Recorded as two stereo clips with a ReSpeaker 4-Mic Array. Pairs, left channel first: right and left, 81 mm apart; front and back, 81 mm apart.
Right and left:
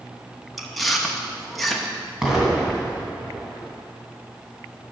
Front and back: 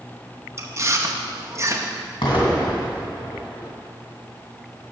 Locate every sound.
0.6 s chewing: straight behind, 0.8 m
2.2 s an explosion: 5° left, 2 m